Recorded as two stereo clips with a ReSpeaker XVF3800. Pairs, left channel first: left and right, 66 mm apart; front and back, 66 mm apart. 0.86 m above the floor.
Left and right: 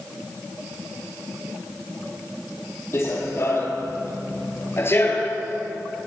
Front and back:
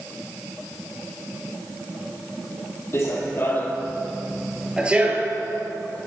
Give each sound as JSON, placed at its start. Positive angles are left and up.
{"t": 2.9, "sound": "running footsteps", "azimuth_deg": 45, "distance_m": 1.8}